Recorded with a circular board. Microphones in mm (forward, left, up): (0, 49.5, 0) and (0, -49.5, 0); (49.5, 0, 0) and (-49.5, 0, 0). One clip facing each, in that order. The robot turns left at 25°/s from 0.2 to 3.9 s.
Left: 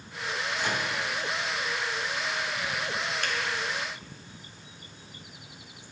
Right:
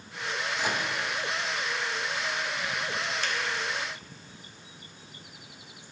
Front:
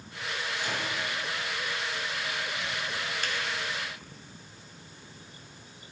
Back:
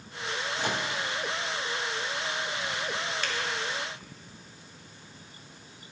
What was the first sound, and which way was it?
A microwave, 165° right.